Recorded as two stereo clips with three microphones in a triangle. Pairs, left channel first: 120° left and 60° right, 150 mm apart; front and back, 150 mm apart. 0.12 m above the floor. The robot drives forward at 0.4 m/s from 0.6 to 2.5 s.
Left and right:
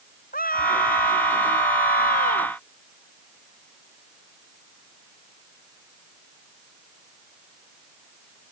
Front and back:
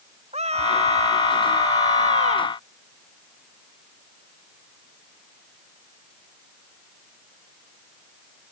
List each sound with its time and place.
0.3 s a scream: 135° left; by 2.6 s 140° left